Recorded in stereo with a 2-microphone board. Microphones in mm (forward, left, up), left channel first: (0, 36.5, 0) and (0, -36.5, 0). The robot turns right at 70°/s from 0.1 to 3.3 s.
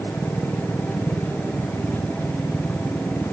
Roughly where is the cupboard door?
No cupboard door in this recording.